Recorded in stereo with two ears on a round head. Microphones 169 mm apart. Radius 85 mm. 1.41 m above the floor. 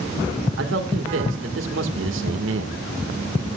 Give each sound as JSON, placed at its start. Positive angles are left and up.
{"t": 0.6, "sound": "a man speaking", "side_deg": -75, "distance_m": 2.0}